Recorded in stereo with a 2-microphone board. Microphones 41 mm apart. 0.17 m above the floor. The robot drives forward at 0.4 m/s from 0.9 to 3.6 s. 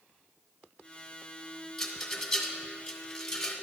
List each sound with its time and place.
1.8 s a rattle: 10° left (ahead or behind), 0.7 m